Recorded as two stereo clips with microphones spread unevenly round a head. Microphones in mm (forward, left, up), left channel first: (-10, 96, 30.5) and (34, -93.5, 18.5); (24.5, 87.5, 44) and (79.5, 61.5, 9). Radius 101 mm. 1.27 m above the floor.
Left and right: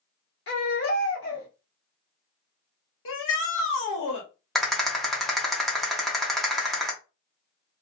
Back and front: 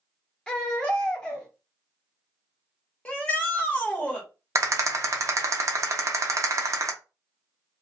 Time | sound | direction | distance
0.5 | a baby crying | 110° left | 1.3 m
3.0 | a shout | 85° left | 1.4 m
4.5 | a rattle | 15° left | 0.9 m